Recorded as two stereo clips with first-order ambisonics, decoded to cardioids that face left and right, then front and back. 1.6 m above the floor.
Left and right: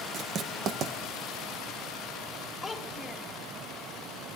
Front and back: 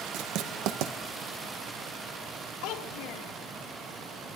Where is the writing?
150° right, 1.5 m.